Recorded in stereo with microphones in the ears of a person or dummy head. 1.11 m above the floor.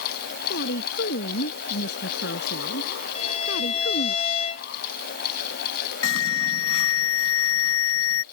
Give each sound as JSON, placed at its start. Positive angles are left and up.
{"t": 0.5, "sound": "a woman speaking", "side_deg": 50}
{"t": 3.1, "sound": "a violin", "side_deg": 40}
{"t": 6.0, "sound": "an alarm", "side_deg": 85}